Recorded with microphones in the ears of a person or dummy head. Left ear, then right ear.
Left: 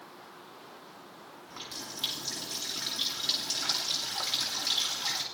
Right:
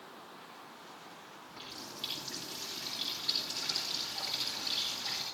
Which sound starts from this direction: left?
A running tap, at 1.5 s.